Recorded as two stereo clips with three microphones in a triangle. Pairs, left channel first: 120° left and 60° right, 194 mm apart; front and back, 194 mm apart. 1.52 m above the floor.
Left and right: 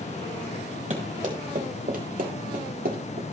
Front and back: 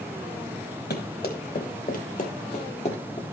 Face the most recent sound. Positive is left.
turn(degrees=-55)